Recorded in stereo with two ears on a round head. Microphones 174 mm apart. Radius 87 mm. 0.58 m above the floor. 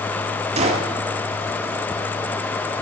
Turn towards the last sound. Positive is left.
turn(degrees=-35)  # may be behind; listen again after turning